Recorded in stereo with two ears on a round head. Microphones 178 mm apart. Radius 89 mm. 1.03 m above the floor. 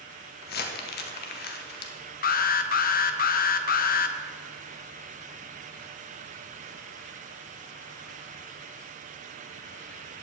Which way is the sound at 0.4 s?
50° left (ahead or behind).